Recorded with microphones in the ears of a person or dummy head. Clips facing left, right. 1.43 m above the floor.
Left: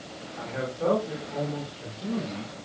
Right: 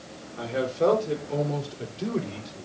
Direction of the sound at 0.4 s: 40° right (ahead or behind).